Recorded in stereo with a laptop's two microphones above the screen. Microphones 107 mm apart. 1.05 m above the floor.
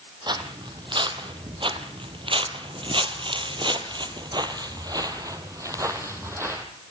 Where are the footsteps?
45° right (ahead or behind), 2.5 m; by 6.7 s 25° right (ahead or behind), 2.5 m.